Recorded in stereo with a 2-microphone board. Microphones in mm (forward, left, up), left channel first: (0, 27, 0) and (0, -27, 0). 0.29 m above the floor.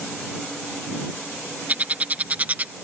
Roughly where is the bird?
Right.